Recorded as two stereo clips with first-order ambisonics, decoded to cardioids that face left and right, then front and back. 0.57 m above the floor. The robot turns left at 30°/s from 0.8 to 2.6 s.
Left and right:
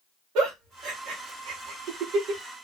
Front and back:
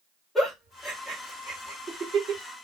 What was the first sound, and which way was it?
A giggle, 75° right.